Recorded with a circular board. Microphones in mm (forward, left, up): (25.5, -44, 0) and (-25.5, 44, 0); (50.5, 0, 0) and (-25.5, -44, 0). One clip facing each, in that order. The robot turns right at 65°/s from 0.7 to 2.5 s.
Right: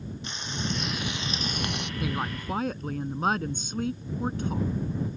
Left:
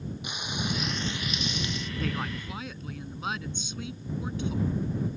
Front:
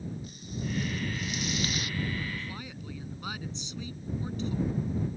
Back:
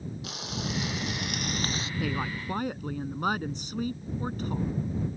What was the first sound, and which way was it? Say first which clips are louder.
Frying: even, back 2 dB; 160° right.